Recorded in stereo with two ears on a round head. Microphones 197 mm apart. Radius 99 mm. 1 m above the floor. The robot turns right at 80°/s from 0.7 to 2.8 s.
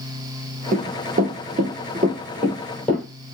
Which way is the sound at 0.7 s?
35° right (ahead or behind).